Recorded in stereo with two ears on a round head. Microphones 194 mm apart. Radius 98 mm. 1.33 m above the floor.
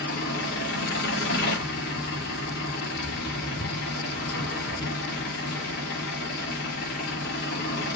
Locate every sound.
0.0 s an engine running: 45° left (ahead or behind), 2 m